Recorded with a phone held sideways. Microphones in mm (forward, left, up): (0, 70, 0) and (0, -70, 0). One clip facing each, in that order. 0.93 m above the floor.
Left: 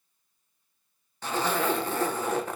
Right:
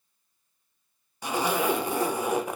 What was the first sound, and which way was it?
A zipper, 15° right (ahead or behind).